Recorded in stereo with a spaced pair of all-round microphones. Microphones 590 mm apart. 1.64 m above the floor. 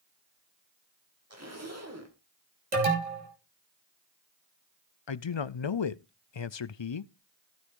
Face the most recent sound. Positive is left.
turn(degrees=50)  # may be behind; listen again after turning